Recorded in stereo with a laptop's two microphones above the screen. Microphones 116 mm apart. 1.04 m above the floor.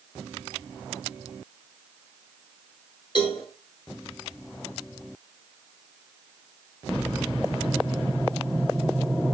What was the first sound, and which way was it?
A cowbell, 40° left (ahead or behind).